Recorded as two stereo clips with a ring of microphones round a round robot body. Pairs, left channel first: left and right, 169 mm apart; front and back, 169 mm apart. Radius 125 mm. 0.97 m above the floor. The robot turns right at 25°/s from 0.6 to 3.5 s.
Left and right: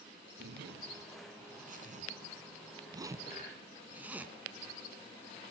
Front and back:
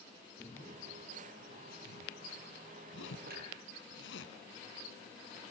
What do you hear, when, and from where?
0.4 s a zipper: 80° right, 3 m; by 4.3 s 10° right, 3 m
3.3 s a clunk: 150° left, 5.5 m; by 3.5 s 155° left, 5.5 m